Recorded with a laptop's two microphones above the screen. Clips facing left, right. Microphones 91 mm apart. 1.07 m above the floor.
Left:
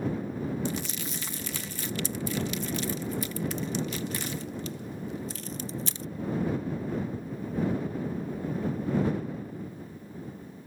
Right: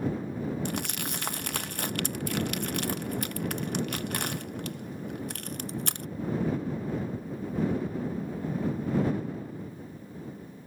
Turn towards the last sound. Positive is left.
turn(degrees=-60)  # may be behind; listen again after turning